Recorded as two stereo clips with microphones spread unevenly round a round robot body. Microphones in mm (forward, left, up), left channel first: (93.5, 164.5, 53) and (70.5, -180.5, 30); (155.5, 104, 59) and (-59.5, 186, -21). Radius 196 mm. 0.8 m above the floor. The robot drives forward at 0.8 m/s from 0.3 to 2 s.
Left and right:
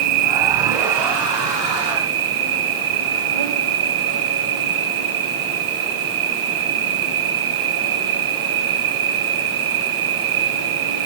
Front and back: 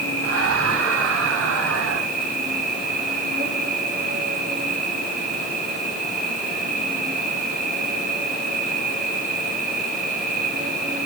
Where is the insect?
105° right, 2.5 m; by 11.1 s 130° right, 3 m.